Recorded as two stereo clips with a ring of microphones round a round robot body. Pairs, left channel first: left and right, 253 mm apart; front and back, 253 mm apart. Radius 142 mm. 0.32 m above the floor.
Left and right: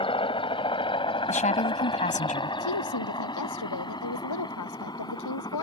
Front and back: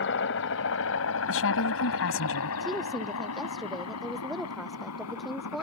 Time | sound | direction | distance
0.0 | a helicopter | 25° left | ?
1.3 | a woman speaking | 30° left | ?
2.6 | a woman speaking | 90° left | ?